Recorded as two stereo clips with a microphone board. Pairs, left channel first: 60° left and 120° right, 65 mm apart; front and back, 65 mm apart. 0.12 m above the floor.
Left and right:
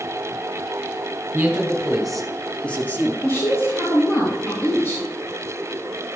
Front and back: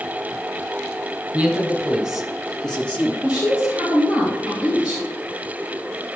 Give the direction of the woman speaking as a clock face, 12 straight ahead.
8 o'clock.